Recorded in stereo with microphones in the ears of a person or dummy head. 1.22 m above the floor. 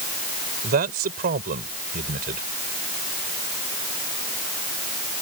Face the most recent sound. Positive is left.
turn(degrees=-45)  # may be behind; listen again after turning